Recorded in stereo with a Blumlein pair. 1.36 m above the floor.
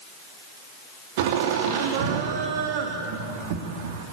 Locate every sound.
1.2 s laughter: 50° right, 3 m